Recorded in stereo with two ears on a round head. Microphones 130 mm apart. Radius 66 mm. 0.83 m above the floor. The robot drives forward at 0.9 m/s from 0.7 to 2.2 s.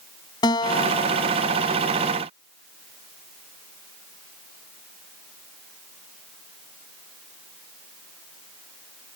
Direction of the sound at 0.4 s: 30° left (ahead or behind).